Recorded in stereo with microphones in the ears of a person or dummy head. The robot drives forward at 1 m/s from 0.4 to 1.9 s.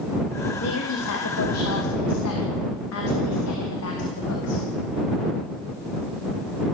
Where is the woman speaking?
65° left (ahead or behind), 2.5 m; by 4.7 s 85° left, 2 m.